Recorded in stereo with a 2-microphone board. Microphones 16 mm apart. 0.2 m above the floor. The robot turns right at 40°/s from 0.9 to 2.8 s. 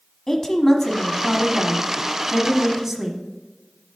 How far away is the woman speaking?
About 1.2 m.